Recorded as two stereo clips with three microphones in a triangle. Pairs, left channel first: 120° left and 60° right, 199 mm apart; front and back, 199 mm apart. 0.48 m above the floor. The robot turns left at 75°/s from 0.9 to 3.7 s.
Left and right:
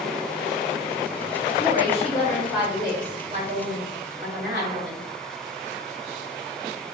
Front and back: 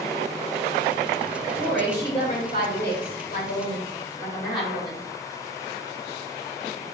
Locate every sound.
1.5 s a woman speaking: 105° left, 2.5 m; by 5.0 s 60° right, 2.5 m